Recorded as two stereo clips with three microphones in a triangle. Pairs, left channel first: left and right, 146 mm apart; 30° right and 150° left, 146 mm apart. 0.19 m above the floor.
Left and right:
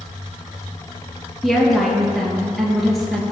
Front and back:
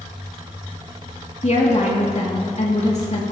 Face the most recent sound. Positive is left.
turn(degrees=0)